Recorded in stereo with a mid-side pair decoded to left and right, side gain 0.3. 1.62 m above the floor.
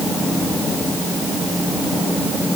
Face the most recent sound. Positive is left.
No sound to turn to.